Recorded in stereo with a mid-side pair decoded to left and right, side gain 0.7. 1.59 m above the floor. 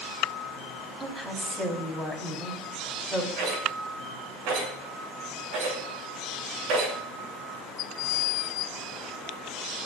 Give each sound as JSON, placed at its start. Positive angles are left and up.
{"t": 1.0, "sound": "a woman speaking", "azimuth_deg": -10, "distance_m": 4.5}
{"t": 3.4, "sound": "a rattle", "azimuth_deg": -70, "distance_m": 6.5}